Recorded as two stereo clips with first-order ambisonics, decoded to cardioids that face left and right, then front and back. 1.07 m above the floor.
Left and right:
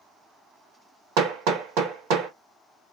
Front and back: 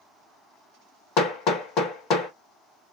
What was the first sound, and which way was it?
Hammering, 55° right.